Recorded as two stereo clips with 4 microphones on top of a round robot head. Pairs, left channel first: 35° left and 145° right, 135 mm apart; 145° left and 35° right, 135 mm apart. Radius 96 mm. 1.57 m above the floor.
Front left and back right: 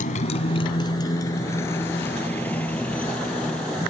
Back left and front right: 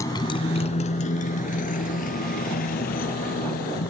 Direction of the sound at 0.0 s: 75° left.